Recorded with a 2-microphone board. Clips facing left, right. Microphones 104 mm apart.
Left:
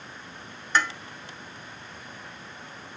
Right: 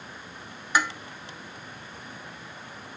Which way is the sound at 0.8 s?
10° right (ahead or behind).